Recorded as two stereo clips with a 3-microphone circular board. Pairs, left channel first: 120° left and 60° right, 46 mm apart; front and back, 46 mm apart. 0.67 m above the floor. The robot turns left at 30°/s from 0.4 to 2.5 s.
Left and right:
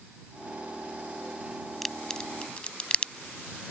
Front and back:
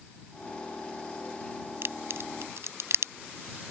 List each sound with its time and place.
1.8 s a crack: 150° right; by 3.1 s 175° right